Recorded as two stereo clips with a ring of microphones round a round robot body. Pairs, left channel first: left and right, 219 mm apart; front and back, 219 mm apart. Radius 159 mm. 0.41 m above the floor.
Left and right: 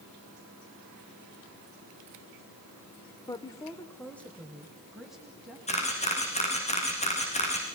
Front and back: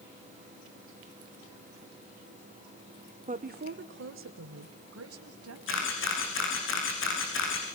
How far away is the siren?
I don't hear a siren.